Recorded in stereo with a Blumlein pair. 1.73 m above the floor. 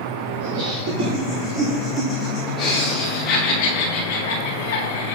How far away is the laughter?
About 1.9 m.